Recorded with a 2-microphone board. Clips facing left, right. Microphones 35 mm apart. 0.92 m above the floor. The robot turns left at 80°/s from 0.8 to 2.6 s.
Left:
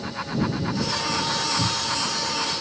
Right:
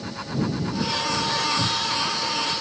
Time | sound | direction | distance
1.6 | a cupboard door | 160° right | ?